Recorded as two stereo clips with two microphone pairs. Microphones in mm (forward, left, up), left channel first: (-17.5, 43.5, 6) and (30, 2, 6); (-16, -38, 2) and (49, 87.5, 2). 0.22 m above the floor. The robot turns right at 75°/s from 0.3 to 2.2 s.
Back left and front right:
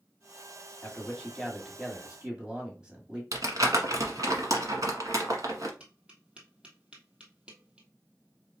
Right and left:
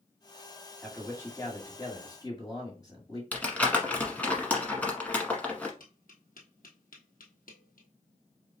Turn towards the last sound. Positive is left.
turn(degrees=-115)